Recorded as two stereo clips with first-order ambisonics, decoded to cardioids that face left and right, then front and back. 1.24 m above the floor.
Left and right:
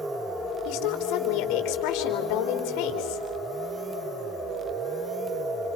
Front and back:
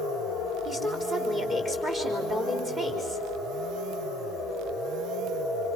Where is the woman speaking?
105° left, 4 m.